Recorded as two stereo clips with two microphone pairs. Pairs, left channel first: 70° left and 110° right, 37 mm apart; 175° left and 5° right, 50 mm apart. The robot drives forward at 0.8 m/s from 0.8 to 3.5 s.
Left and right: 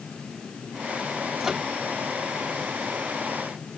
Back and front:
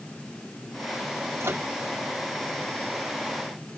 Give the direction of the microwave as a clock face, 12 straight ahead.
1 o'clock.